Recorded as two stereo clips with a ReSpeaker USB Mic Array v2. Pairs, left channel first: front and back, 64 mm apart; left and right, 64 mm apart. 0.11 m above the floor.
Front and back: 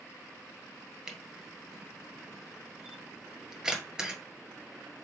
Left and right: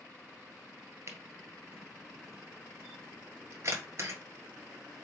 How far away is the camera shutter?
About 1.6 m.